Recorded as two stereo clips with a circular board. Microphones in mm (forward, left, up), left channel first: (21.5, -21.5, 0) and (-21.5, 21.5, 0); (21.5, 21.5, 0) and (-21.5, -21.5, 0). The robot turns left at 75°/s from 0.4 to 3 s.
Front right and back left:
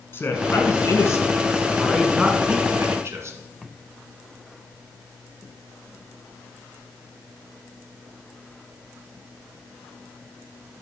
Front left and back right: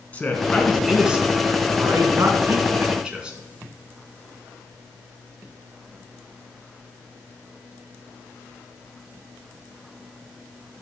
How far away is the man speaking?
About 2.0 m.